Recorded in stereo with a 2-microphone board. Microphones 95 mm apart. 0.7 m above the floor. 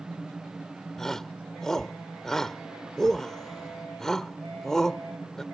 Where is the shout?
5° left (ahead or behind).